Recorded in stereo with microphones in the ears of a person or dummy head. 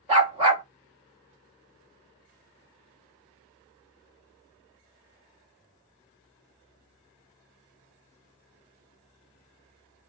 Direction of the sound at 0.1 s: 30° right (ahead or behind).